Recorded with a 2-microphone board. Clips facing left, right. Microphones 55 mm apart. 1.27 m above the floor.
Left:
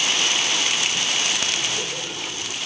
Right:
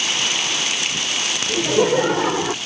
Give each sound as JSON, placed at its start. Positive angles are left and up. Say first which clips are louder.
{"t": 1.5, "sound": "laughter", "louder": "right 10 dB", "side_deg": -60}